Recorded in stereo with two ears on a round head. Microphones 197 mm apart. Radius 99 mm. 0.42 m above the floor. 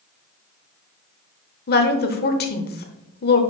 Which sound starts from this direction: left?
A woman speaking, at 1.7 s.